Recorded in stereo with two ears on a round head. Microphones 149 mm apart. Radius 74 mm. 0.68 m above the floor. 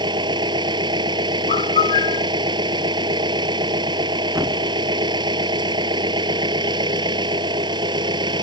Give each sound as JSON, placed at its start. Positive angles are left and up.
{"t": 0.0, "sound": "an engine running", "side_deg": -30}
{"t": 1.5, "sound": "a bird", "side_deg": 40}
{"t": 4.3, "sound": "a thud", "side_deg": -15}